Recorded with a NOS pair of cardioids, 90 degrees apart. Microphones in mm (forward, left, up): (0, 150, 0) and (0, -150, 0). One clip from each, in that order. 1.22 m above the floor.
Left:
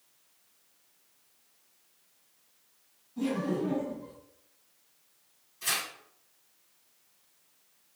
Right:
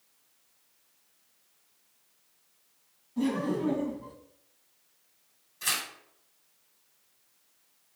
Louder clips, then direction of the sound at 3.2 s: Right 1 dB; 40° right.